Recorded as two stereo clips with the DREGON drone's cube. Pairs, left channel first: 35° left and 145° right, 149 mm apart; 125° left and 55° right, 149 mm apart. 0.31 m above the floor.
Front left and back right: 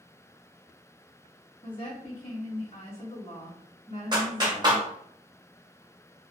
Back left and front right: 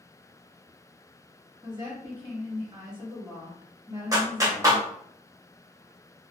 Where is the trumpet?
I don't hear a trumpet.